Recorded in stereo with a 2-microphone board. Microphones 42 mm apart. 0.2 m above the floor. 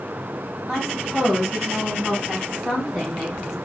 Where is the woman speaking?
5° left (ahead or behind), 1.8 m; by 3.5 s centre (ahead or behind), 3 m.